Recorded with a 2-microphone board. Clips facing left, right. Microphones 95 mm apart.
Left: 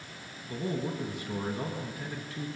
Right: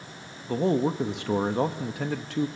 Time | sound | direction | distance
0.5 | a man speaking | 80° right | 1.0 m